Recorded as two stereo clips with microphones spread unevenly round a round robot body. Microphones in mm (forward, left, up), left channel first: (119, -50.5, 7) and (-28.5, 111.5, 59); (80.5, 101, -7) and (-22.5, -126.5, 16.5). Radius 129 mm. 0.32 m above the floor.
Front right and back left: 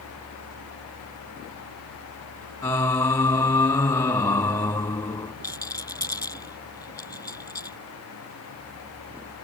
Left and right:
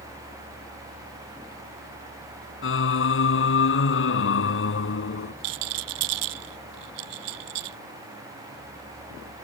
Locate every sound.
2.6 s singing: 30° left
5.4 s a rattle: 125° right